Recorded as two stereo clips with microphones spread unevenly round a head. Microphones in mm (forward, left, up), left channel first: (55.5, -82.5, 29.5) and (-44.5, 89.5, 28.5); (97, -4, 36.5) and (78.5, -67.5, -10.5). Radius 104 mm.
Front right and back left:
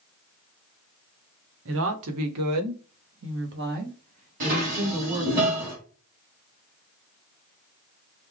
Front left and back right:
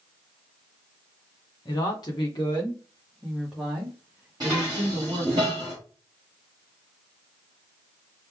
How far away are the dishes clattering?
About 2.5 m.